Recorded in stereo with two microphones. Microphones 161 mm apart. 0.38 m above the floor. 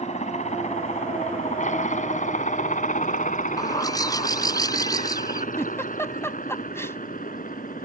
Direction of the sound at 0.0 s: 50° left (ahead or behind).